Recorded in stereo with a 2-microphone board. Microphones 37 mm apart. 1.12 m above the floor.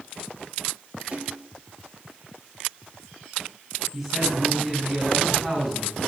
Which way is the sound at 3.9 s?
10° right (ahead or behind).